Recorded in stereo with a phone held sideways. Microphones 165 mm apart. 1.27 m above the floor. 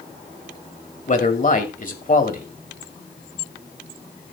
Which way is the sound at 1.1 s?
50° left (ahead or behind).